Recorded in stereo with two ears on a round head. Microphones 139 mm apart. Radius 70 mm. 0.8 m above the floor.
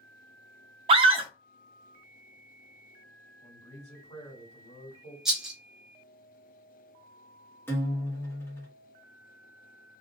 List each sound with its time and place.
0.9 s a scream: 35° right (ahead or behind), 0.6 m
3.4 s a man speaking: 35° left (ahead or behind), 1.7 m
5.2 s a rattle: 5° right (ahead or behind), 1.0 m
7.7 s a guitar: 15° left (ahead or behind), 0.9 m